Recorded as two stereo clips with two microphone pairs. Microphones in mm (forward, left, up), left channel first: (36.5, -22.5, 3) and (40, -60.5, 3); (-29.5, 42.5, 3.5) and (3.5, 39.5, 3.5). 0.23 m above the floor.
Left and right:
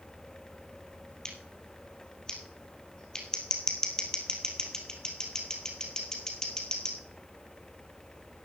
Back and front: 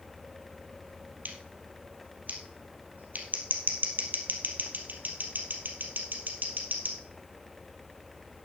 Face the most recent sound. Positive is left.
turn(degrees=25)